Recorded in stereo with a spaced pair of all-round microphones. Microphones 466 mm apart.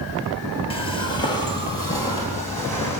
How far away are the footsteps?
About 1.6 m.